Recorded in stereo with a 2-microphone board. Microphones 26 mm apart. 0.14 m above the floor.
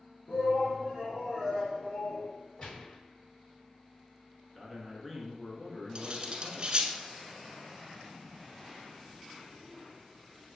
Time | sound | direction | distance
0.3 | a shout | 45° left (ahead or behind) | 2.5 m
2.6 | a gunshot | 45° left (ahead or behind) | 3.5 m
4.5 | a man speaking | 5° left (ahead or behind) | 2 m
6.0 | cutlery clinking | 30° right (ahead or behind) | 0.9 m